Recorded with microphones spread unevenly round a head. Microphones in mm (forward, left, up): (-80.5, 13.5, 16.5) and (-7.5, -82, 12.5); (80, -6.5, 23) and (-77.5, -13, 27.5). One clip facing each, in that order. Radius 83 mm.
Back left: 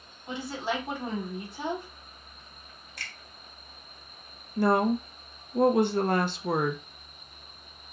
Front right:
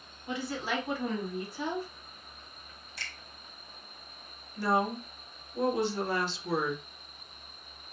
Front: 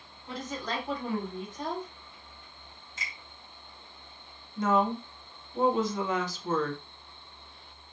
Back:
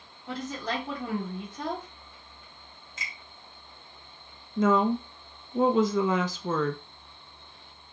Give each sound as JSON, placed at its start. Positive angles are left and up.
{"t": 0.3, "sound": "a woman speaking", "azimuth_deg": -170, "distance_m": 1.6}
{"t": 3.0, "sound": "a finger snap", "azimuth_deg": 170, "distance_m": 1.0}
{"t": 4.6, "sound": "a woman speaking", "azimuth_deg": 165, "distance_m": 0.6}